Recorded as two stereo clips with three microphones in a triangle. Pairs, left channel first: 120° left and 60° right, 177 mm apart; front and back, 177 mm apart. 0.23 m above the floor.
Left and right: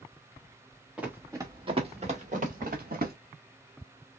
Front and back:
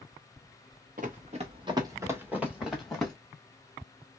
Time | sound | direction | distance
1.0 | running footsteps | 145° right | 1.4 m